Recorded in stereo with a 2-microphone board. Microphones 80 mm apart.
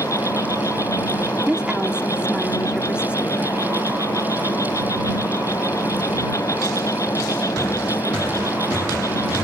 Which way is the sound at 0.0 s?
40° left (ahead or behind).